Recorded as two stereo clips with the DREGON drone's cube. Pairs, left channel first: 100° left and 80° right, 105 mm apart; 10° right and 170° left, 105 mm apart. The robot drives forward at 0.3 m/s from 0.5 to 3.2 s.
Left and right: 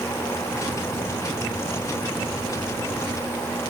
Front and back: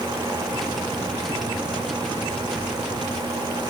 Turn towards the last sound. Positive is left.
No sound to turn to.